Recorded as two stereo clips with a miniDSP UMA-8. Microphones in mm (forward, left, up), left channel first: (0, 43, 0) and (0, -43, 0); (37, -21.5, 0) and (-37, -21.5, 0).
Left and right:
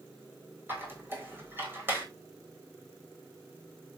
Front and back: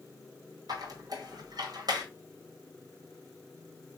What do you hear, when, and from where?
0.7 s a squeak: 155° right, 1.8 m